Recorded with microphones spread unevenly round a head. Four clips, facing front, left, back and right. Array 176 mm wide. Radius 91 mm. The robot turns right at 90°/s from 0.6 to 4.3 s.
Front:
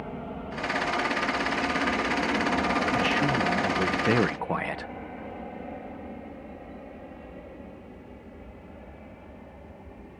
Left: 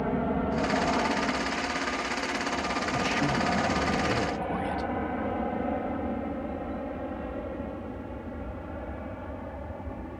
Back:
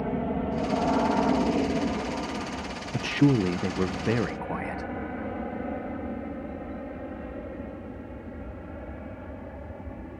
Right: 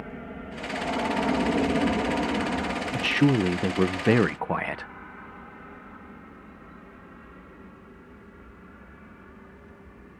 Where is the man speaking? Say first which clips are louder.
Right 7 dB, back 2 dB; 160° right; by 4.9 s 40° right.